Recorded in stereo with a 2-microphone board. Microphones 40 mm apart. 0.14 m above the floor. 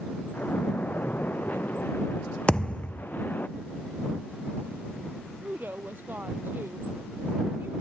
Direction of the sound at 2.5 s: 25° left (ahead or behind).